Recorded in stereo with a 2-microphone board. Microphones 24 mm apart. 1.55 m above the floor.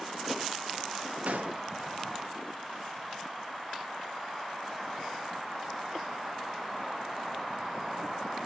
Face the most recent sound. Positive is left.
turn(degrees=-90)